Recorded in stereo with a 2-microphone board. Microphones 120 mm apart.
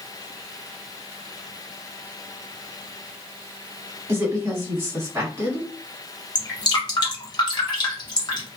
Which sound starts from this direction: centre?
A woman speaking, at 4.1 s.